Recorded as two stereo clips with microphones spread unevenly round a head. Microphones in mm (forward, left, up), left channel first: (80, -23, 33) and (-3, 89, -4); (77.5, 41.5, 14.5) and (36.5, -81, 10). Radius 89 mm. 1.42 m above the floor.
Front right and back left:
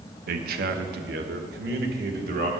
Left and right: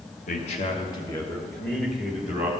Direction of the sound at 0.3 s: 115° left.